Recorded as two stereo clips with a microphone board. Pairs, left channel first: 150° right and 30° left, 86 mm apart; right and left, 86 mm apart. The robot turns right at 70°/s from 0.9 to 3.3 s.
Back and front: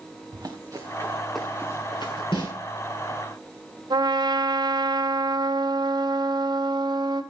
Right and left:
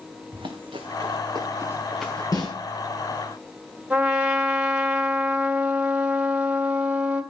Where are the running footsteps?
70° left, 2.5 m; by 2.2 s 160° right, 3.5 m.